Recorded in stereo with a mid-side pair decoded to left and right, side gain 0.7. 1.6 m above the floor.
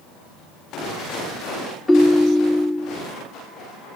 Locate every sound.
1.9 s a ringtone: 15° left, 2.5 m